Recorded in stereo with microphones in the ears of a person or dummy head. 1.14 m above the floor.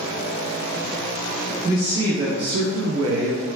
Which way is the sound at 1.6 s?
15° right (ahead or behind).